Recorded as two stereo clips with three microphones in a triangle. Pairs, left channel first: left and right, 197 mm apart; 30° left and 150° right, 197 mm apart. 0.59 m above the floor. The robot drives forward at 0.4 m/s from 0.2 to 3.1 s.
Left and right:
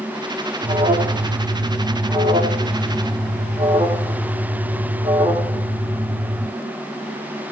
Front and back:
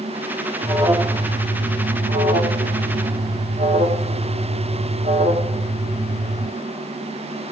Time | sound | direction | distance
0.6 | an alarm | 85° right | 1.2 m